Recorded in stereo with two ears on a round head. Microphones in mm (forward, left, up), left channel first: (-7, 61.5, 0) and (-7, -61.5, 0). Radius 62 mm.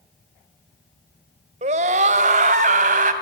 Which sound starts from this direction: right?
A scream, at 1.6 s.